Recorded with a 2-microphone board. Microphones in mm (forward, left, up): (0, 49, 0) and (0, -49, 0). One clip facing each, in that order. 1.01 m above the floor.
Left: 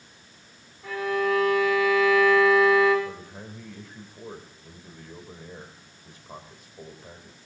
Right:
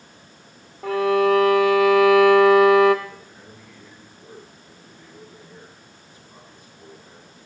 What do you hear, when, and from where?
0.8 s a violin: 65° right (ahead or behind), 1.2 m
3.0 s a man speaking: 80° left, 3.5 m